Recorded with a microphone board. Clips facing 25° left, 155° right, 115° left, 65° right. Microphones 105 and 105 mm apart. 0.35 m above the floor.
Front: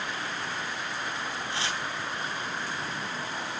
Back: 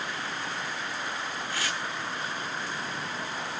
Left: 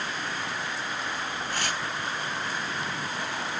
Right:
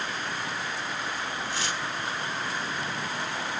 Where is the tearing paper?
85° left, 3 m.